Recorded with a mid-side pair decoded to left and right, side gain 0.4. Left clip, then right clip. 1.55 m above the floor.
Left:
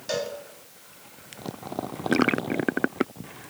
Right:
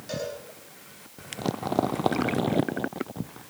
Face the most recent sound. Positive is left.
turn(degrees=55)